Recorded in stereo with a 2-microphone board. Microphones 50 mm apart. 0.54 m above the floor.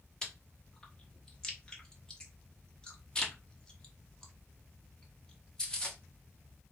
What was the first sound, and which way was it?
Chewing, 15° left (ahead or behind).